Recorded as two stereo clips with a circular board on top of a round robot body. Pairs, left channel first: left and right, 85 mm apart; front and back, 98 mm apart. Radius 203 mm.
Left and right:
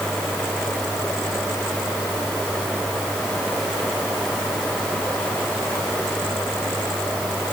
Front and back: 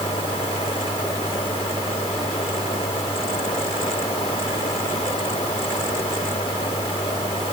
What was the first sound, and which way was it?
Only background noise.